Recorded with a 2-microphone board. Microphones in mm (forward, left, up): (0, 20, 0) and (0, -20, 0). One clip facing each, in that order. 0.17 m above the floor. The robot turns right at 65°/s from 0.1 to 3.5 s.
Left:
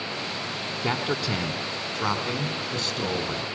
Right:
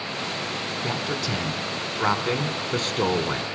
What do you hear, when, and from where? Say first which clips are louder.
0.8 s a man speaking: left 3 dB; 120° left, 1.6 m; by 3.4 s 70° right, 1.6 m